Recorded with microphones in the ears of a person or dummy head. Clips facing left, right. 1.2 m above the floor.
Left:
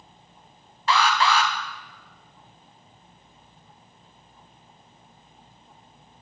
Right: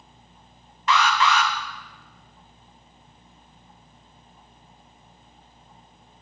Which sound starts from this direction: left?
An alarm, at 0.9 s.